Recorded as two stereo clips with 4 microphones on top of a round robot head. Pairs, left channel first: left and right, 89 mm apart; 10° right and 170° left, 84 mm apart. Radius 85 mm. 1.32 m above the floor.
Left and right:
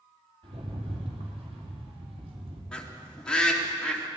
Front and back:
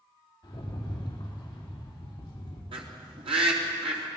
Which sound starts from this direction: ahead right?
A rattle, at 0.4 s.